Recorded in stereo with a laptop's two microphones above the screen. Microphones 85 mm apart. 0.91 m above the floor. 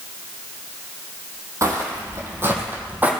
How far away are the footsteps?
About 2 m.